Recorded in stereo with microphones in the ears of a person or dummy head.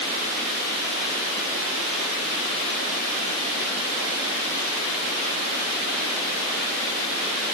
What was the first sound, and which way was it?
Only background noise.